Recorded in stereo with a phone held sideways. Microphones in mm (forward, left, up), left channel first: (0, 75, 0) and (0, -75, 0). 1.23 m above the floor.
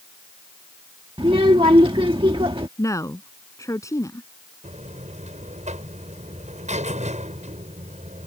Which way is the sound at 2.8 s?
20° left (ahead or behind).